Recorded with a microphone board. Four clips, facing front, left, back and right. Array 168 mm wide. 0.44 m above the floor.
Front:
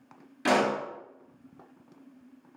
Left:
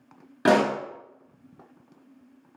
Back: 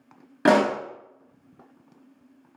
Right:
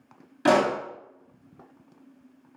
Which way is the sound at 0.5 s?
145° left.